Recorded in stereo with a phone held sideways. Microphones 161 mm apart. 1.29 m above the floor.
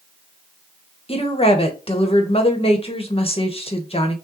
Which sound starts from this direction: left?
A woman speaking, at 1.1 s.